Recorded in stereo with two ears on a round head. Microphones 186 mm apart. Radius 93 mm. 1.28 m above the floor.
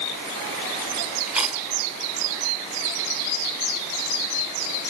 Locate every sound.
1.3 s chewing: 5° right (ahead or behind), 1.7 m